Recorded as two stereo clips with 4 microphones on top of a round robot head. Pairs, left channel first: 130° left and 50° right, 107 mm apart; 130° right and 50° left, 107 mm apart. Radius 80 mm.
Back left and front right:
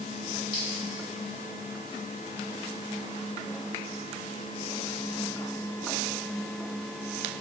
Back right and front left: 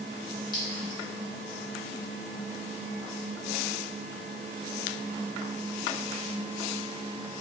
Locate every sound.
0.5 s a clink: straight behind, 1.7 m